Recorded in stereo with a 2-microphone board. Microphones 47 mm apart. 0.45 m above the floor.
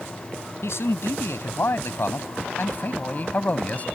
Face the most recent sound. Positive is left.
turn(degrees=35)  # may be behind; listen again after turning